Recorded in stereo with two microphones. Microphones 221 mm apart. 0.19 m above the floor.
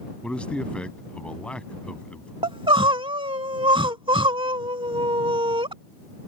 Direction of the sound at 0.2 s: 5° left (ahead or behind).